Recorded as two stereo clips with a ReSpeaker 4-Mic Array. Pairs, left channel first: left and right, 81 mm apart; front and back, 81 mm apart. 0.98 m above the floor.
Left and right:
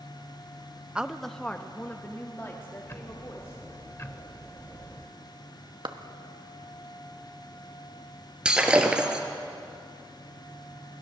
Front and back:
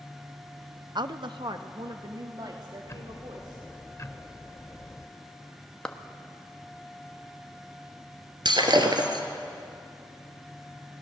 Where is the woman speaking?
165° right, 0.6 m; by 3.6 s 145° left, 2.5 m.